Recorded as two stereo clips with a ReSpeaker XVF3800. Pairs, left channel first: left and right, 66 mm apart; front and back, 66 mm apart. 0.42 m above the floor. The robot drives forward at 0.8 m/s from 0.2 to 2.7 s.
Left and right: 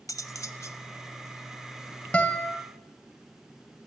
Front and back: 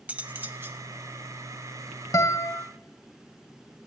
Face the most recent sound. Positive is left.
turn(degrees=30)